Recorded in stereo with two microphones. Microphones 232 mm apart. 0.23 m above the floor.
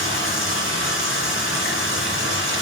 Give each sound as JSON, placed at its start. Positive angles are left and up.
{"t": 0.0, "sound": "running water", "side_deg": 60, "distance_m": 2.5}